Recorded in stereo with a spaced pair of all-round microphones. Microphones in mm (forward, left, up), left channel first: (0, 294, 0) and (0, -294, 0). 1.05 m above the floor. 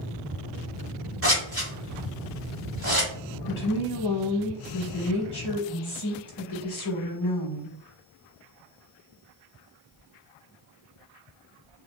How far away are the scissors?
About 1.5 m.